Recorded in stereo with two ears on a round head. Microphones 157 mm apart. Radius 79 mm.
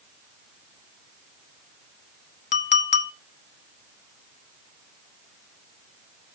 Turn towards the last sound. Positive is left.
turn(degrees=40)  # may be behind; listen again after turning